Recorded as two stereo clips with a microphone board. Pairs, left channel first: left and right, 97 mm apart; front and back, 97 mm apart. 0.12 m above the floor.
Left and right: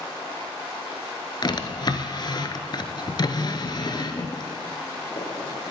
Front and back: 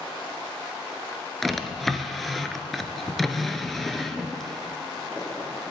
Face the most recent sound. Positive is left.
turn(degrees=85)